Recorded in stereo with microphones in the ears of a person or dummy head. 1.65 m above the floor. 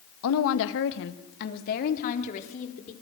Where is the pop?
I don't hear a pop.